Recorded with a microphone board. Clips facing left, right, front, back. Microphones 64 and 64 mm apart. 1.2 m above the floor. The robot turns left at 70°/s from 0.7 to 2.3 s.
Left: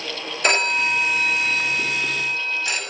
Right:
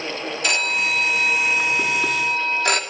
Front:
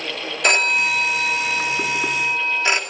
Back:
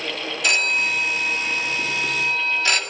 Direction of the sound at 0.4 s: 45° left.